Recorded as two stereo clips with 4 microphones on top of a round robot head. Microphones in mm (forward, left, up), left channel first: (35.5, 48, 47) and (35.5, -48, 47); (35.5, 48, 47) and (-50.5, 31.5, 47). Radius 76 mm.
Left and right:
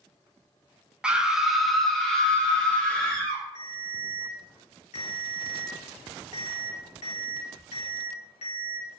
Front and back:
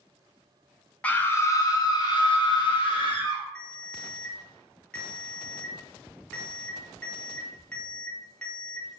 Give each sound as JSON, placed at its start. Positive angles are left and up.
{"t": 1.0, "sound": "a scream", "azimuth_deg": -25, "distance_m": 0.6}
{"t": 3.5, "sound": "a ringtone", "azimuth_deg": 90, "distance_m": 1.5}